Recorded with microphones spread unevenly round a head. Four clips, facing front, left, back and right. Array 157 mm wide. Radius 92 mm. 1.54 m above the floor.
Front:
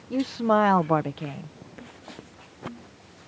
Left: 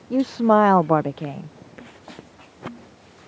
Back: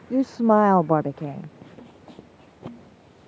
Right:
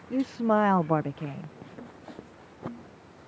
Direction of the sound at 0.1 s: 130° left.